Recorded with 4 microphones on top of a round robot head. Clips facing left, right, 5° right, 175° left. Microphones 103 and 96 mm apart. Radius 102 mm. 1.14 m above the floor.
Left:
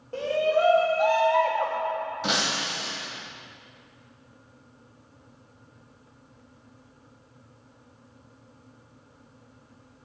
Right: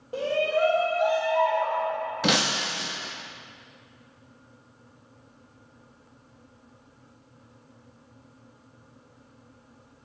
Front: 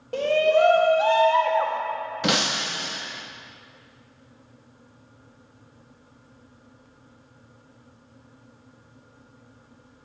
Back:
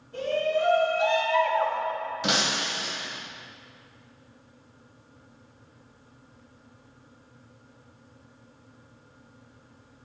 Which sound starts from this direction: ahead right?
Breaking glass, at 2.2 s.